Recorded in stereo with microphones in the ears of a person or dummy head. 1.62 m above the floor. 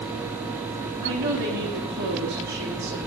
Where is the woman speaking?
60° right (ahead or behind), 3.5 m.